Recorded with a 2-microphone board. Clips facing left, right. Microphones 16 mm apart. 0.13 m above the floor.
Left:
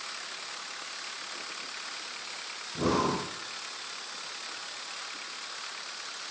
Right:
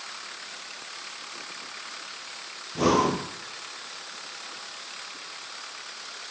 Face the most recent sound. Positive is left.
turn(degrees=-65)  # may be behind; listen again after turning